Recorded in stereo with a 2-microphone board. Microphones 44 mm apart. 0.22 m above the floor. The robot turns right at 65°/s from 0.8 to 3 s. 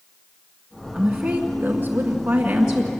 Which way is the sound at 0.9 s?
130° right.